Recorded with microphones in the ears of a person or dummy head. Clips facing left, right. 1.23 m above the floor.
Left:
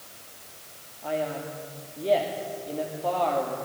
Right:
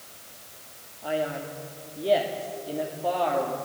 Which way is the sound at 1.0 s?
5° right (ahead or behind).